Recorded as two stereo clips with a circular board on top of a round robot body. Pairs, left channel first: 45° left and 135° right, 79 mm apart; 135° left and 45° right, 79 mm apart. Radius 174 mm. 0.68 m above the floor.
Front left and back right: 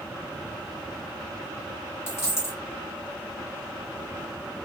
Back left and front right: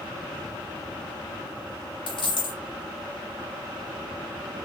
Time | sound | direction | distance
2.1 | a dropped coin | 105° left | 1.6 m